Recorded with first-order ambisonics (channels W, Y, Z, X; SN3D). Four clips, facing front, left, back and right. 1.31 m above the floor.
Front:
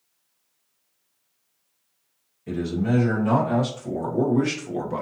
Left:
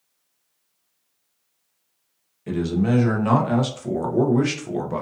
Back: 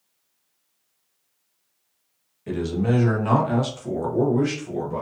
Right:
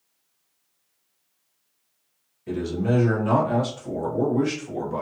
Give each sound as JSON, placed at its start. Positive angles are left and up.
{"t": 2.5, "sound": "a man speaking", "azimuth_deg": 125, "distance_m": 1.5}